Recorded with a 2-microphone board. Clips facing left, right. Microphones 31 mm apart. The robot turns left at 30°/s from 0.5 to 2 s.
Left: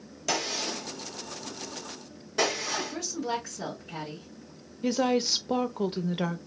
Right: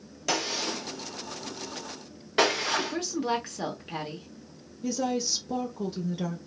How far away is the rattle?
I don't hear a rattle.